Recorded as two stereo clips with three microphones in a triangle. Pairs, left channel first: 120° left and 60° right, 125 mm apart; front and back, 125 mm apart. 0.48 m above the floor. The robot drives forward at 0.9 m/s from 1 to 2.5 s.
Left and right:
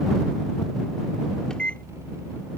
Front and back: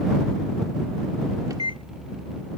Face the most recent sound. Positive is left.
turn(degrees=-175)